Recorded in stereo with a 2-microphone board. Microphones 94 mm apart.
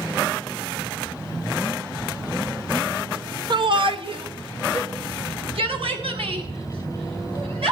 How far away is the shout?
About 0.7 m.